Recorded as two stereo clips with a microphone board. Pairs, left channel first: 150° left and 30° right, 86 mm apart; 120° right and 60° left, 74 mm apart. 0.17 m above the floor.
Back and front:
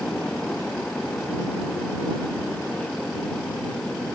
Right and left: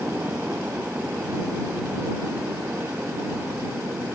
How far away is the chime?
I don't hear a chime.